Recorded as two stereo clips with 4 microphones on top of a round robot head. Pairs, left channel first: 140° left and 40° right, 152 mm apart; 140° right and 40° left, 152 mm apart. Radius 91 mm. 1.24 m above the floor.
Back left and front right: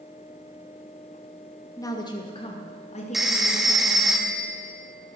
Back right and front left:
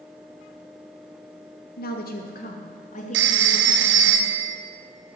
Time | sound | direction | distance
1.8 | a woman speaking | 150° right | 1.9 m
3.1 | a phone ringing | 45° left | 1.1 m